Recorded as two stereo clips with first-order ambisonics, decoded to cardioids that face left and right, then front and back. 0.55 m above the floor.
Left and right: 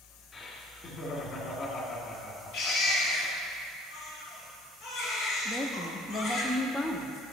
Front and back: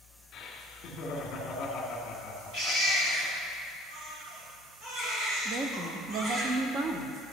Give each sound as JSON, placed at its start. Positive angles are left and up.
{"t": 0.3, "sound": "laughter", "azimuth_deg": 35, "distance_m": 1.7}
{"t": 2.5, "sound": "a baby crying", "azimuth_deg": 130, "distance_m": 3.0}
{"t": 5.5, "sound": "a woman speaking", "azimuth_deg": 160, "distance_m": 0.7}